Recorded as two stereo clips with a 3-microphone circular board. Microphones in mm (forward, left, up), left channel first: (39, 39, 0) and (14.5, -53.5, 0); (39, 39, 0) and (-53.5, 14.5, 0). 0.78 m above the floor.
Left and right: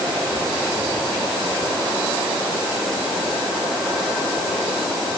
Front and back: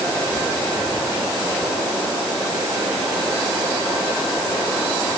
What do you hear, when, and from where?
Only background noise.